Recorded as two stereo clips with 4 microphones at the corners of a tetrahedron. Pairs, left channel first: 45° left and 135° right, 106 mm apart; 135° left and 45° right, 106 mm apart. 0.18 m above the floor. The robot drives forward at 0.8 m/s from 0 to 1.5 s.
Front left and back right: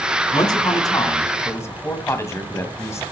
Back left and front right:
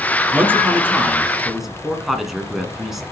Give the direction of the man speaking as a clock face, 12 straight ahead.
11 o'clock.